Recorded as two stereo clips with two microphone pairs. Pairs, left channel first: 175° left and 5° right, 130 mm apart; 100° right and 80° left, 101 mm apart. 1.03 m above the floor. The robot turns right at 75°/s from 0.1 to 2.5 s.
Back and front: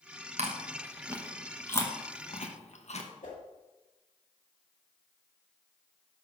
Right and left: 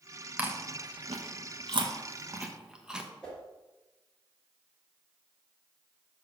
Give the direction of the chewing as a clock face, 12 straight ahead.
12 o'clock.